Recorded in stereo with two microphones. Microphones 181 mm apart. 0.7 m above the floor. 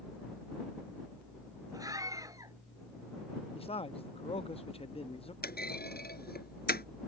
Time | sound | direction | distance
1.7 | a scream | 20° right (ahead or behind) | ?
3.5 | a man speaking | 30° left (ahead or behind) | ?
5.4 | a clunk | 60° left (ahead or behind) | ?